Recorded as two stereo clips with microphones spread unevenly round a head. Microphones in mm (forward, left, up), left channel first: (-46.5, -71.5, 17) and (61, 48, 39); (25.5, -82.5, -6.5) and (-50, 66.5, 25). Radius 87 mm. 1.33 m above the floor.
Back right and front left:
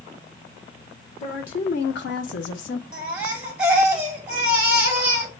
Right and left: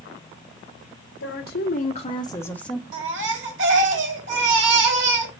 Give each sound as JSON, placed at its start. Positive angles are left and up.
{"t": 1.2, "sound": "a woman speaking", "azimuth_deg": -85, "distance_m": 1.2}
{"t": 2.9, "sound": "a baby crying", "azimuth_deg": 130, "distance_m": 2.0}